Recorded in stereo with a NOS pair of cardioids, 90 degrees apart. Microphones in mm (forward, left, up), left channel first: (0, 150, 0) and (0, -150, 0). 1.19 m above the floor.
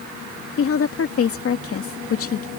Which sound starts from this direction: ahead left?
A woman speaking, at 0.6 s.